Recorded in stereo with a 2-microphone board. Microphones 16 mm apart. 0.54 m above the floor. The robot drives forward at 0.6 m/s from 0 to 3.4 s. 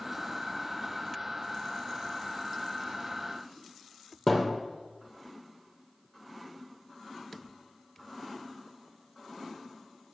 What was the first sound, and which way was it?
A thud, 5° left (ahead or behind).